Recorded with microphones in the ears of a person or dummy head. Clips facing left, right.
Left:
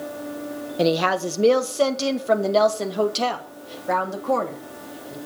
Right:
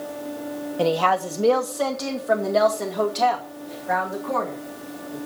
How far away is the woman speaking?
About 1.1 m.